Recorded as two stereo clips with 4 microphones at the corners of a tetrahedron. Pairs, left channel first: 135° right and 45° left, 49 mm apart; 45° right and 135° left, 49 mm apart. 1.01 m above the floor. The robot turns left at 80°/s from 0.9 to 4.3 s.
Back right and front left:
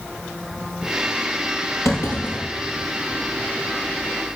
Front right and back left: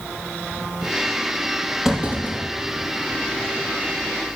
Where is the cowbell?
I don't hear a cowbell.